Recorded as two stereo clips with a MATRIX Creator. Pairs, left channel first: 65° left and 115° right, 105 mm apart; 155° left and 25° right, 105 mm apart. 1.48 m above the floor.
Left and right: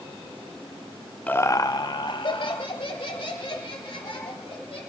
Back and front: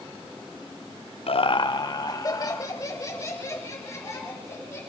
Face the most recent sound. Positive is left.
turn(degrees=95)